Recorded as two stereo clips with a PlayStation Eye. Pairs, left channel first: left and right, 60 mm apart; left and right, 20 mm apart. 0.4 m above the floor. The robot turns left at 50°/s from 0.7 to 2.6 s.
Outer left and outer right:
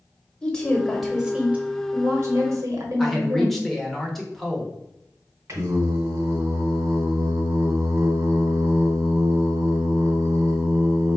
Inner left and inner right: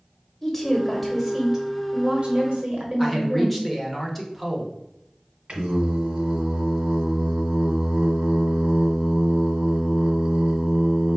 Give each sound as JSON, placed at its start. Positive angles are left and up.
{"t": 0.4, "sound": "a woman speaking", "azimuth_deg": 20, "distance_m": 1.3}
{"t": 3.0, "sound": "a man speaking", "side_deg": 5, "distance_m": 0.9}
{"t": 5.5, "sound": "singing", "side_deg": -50, "distance_m": 1.4}